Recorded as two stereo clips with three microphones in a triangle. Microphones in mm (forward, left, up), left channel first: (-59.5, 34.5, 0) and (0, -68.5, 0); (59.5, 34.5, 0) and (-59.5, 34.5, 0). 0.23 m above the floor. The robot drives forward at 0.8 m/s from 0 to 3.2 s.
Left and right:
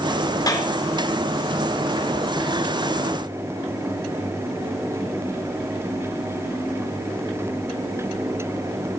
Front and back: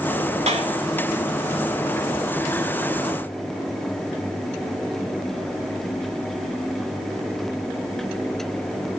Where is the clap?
175° left, 3.5 m.